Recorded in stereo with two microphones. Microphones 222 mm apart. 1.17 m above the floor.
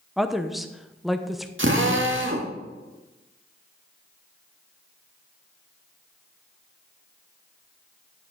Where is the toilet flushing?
No toilet flushing in this recording.